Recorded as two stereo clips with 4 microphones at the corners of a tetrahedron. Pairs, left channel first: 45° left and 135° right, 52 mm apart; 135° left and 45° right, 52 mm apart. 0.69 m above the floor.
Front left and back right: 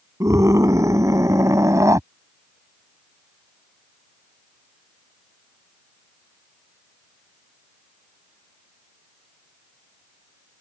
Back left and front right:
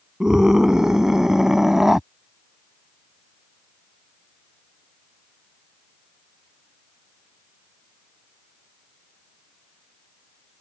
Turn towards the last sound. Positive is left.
turn(degrees=-125)